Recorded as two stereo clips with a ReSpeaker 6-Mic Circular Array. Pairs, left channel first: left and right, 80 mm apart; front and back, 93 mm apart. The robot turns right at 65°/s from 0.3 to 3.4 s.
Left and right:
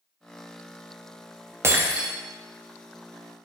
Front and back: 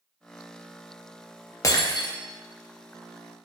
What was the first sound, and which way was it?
Breaking glass, 40° right.